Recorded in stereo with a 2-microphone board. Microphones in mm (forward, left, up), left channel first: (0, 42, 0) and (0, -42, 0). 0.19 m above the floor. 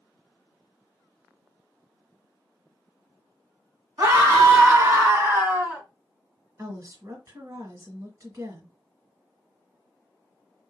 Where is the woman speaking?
40° right (ahead or behind), 2.5 m.